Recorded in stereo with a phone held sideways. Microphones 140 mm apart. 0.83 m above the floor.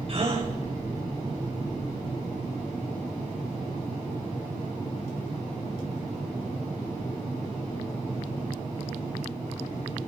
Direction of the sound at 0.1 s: 45° right (ahead or behind).